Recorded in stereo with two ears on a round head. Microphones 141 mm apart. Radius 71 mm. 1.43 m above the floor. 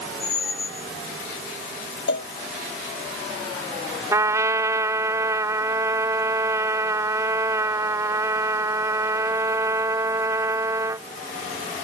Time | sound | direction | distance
0.2 | a squeak | 75° left (ahead or behind) | ?
2.1 | a cowbell | 80° left | ?
4.1 | a trumpet | 20° right (ahead or behind) | ?